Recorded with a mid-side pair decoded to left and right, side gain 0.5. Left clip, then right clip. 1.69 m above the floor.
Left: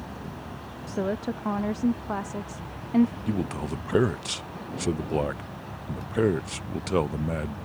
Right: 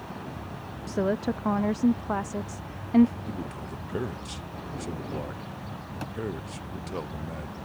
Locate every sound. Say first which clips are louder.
0.9 s a woman speaking: right 2 dB; 15° right
3.3 s a man speaking: left 6 dB; 55° left